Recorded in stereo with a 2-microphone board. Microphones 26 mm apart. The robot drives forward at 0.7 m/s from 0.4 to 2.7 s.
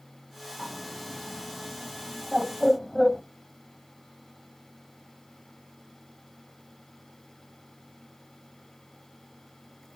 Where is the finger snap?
No finger snap in this recording.